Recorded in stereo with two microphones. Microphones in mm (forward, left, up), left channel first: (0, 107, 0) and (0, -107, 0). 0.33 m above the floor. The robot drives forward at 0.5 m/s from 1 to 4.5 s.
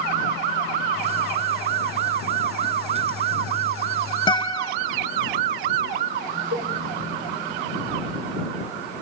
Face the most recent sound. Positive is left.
turn(degrees=-90)